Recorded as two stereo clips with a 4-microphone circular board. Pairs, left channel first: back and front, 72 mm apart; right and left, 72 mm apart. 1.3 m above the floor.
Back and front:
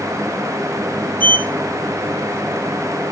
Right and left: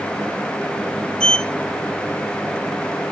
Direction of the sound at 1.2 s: 155° right.